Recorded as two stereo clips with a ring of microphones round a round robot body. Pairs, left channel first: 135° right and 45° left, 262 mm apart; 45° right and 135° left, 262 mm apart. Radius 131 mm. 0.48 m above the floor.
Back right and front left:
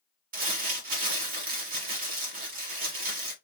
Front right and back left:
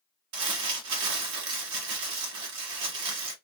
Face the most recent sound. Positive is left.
turn(degrees=105)